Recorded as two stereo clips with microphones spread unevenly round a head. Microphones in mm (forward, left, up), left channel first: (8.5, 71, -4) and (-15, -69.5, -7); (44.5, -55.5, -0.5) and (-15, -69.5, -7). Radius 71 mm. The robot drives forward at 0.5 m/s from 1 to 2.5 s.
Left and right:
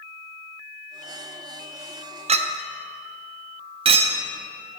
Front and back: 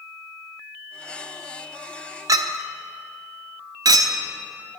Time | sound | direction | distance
2.3 | a clink | 145° right | 0.5 m